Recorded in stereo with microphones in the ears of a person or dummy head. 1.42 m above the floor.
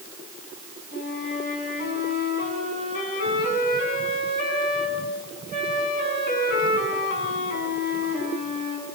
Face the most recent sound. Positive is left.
turn(degrees=50)  # may be behind; listen again after turning